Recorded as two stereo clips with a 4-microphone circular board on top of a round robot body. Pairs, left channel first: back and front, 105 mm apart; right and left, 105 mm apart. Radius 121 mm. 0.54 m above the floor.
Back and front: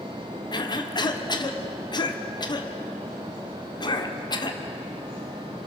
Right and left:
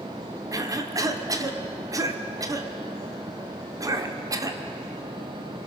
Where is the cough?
140° left, 2 m.